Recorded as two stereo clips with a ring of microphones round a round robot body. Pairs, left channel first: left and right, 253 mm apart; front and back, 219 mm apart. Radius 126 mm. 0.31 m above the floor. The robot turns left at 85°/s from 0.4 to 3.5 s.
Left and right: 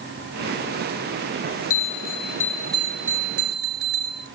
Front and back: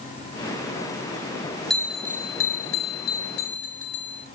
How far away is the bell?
About 2.5 m.